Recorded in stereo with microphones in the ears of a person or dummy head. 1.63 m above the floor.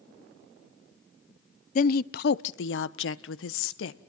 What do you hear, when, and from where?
1.8 s a woman speaking: 50° left (ahead or behind), 0.7 m; by 4.0 s 85° left, 1.6 m